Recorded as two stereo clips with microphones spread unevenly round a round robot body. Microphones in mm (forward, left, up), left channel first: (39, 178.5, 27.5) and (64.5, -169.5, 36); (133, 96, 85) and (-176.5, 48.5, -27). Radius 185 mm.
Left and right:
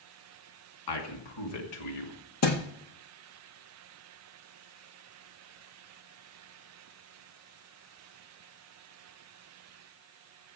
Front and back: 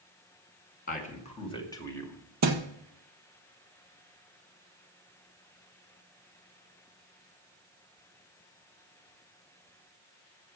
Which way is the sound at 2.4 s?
145° left.